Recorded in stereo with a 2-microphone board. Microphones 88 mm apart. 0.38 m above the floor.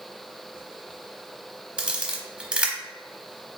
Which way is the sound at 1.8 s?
10° right (ahead or behind).